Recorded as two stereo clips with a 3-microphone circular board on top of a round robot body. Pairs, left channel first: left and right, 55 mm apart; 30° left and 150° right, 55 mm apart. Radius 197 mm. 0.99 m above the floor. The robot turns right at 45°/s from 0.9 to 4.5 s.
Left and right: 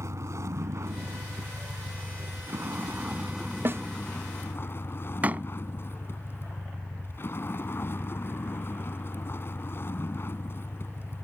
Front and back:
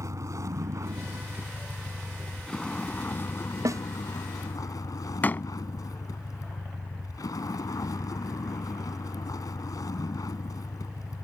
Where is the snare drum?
135° right; by 3.8 s 130° right.